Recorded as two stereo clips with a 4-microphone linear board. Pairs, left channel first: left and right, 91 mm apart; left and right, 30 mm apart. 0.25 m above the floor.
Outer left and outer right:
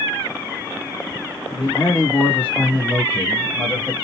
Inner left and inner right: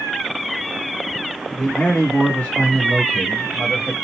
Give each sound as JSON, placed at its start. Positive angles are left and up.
{"t": 1.5, "sound": "a man speaking", "side_deg": 30, "distance_m": 3.0}